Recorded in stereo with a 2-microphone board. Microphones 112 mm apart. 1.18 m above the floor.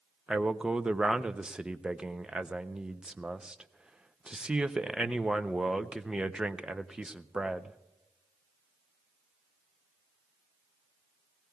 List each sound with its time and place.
0.3 s a man speaking: 10° right (ahead or behind), 0.6 m